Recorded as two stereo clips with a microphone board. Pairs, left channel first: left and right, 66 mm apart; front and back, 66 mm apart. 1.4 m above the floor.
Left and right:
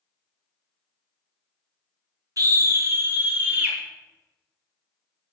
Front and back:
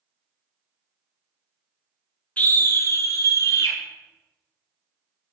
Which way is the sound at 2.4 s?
65° right.